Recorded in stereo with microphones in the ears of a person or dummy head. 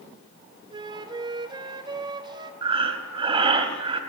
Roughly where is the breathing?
Right.